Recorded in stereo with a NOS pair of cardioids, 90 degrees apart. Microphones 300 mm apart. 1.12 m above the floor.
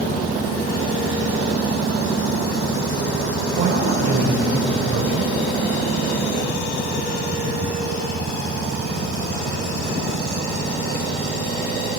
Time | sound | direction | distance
3.6 | a woman speaking | 60° right | 5 m